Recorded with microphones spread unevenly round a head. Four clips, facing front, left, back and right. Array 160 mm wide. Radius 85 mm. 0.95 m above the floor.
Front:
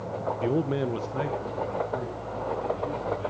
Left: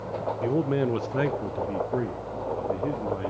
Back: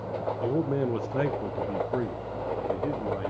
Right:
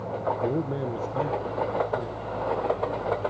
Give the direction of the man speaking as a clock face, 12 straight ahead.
1 o'clock.